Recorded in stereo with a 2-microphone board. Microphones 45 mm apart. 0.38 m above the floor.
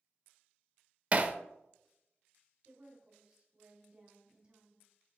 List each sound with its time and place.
1.1 s hammering: 35° right (ahead or behind), 0.6 m
2.6 s a woman speaking: 35° right (ahead or behind), 2.5 m